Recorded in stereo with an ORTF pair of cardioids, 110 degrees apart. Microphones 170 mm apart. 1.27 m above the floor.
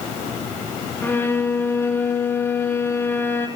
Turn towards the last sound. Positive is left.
turn(degrees=15)